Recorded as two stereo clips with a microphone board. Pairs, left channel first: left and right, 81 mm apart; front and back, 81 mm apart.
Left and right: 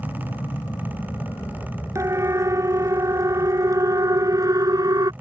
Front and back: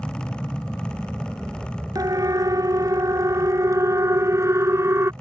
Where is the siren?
140° right; by 5.1 s 125° right.